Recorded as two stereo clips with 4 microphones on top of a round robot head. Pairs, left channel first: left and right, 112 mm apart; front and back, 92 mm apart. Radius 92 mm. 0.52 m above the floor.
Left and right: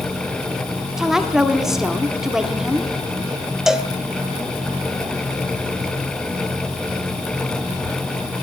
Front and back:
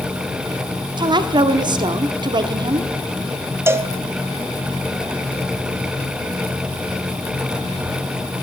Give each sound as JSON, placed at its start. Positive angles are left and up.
{"t": 1.0, "sound": "a woman speaking", "azimuth_deg": -175, "distance_m": 0.9}
{"t": 3.7, "sound": "a cowbell", "azimuth_deg": -170, "distance_m": 0.7}